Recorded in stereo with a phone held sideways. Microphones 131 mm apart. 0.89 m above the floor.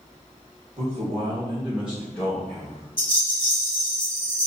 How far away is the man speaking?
About 1.2 m.